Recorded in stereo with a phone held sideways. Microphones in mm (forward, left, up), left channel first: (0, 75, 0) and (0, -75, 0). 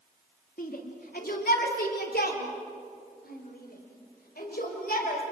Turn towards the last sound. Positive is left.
turn(degrees=70)  # may be behind; listen again after turning